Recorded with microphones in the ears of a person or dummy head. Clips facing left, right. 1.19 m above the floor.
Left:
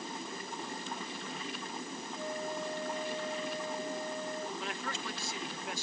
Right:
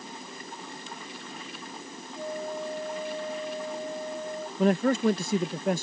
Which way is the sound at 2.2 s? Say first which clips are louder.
Right 5 dB; 20° right (ahead or behind).